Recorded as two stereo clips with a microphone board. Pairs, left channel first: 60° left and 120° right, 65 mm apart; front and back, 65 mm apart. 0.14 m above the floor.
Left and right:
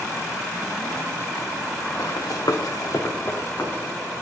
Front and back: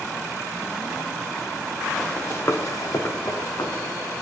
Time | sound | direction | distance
2.0 | running footsteps | 75° left | 1.1 m